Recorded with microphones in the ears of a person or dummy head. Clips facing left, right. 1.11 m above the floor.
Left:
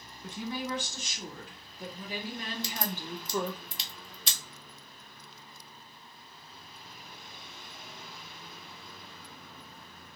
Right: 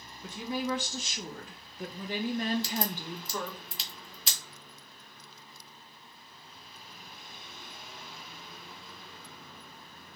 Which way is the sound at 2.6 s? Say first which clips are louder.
Right 2 dB; 5° right (ahead or behind).